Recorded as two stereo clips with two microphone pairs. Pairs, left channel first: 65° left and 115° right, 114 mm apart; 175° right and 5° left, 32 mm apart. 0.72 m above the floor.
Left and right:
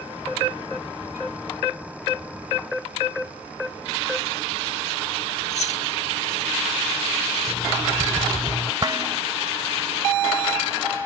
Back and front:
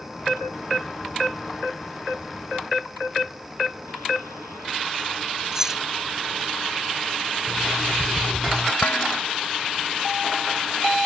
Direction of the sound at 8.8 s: 165° right.